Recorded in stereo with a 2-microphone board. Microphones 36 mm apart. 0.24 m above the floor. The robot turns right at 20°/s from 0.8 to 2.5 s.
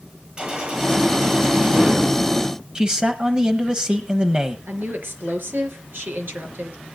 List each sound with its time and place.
0.4 s a gunshot: 30° right (ahead or behind), 7 m; by 2.0 s 55° right (ahead or behind), 7 m
2.8 s a man speaking: 20° right (ahead or behind), 1.3 m
4.7 s a woman speaking: 65° right (ahead or behind), 4 m